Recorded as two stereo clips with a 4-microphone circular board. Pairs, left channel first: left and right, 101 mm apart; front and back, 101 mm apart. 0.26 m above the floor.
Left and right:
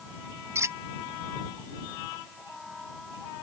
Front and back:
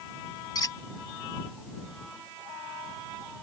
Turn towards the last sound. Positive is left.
turn(degrees=-35)